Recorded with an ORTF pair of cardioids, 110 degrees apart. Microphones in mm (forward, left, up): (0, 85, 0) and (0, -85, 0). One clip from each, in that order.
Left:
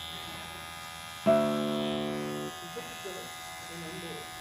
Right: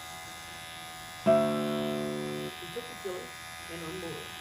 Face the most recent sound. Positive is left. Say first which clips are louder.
# right 1 dB
turn(degrees=-25)